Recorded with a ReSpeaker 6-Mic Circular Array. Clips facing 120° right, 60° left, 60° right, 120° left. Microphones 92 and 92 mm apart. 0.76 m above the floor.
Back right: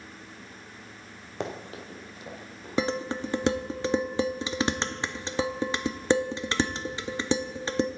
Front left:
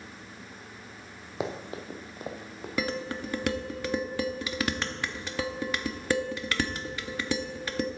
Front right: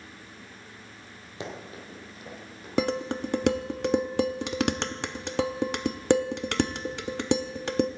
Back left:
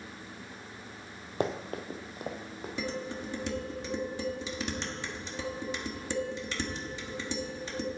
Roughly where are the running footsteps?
Behind left.